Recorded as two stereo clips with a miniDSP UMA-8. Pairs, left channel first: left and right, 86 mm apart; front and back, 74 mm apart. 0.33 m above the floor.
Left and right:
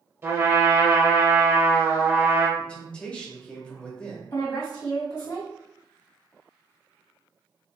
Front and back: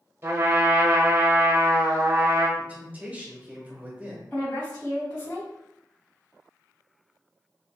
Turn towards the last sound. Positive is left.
turn(degrees=70)